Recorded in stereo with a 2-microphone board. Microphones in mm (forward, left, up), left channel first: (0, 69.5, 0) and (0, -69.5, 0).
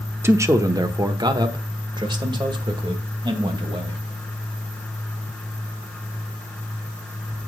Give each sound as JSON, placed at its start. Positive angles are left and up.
{"t": 0.2, "sound": "a man speaking", "side_deg": -15, "distance_m": 0.9}